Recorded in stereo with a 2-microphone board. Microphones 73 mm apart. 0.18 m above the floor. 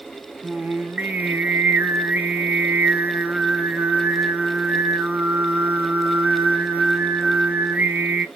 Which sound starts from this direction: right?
Singing, at 0.4 s.